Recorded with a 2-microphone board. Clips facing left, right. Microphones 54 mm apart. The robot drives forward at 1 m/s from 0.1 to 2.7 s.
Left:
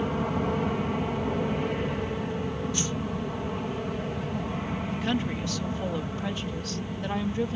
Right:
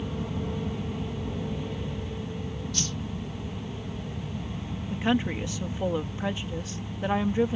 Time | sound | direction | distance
0.0 | an aircraft | 60° left (ahead or behind) | ?
2.7 | a whoosh | 15° left (ahead or behind) | ?
4.9 | a woman speaking | 20° right (ahead or behind) | ?